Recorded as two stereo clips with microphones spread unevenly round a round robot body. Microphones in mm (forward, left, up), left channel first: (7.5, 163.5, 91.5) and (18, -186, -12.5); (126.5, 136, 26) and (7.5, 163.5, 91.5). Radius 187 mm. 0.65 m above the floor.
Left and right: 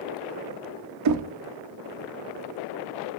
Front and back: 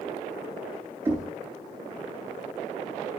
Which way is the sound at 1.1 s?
100° right.